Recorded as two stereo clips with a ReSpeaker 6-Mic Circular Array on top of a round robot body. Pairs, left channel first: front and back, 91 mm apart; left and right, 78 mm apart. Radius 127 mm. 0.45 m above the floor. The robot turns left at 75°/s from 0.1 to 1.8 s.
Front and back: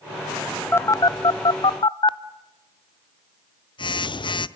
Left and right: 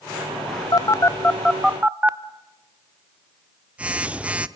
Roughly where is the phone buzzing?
Ahead left.